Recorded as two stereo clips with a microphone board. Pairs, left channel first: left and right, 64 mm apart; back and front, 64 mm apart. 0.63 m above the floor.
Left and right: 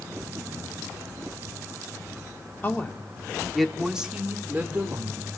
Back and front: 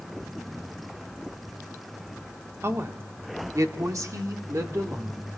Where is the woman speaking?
35° left, 1.6 m; by 5.3 s 40° right, 2.5 m.